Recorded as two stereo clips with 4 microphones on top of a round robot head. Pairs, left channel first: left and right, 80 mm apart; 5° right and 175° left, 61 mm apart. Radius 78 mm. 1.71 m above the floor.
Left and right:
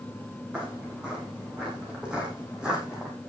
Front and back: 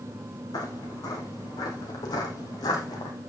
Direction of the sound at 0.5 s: 10° right.